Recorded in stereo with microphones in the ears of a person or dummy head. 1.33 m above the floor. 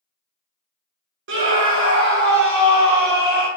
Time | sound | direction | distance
1.3 | a scream | 55° right (ahead or behind) | 0.8 m